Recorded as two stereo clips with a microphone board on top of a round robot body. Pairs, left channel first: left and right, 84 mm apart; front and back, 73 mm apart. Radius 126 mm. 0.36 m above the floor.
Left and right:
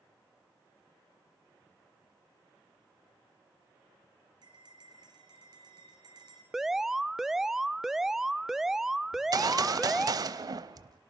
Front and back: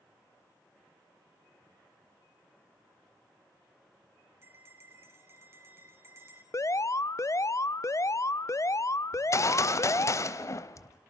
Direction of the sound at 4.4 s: 130° right.